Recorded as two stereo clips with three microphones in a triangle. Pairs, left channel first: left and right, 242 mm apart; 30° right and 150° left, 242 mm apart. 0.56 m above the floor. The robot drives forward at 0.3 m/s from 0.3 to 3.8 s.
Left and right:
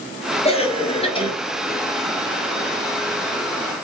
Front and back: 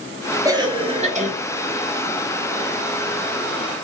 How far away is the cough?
About 0.6 m.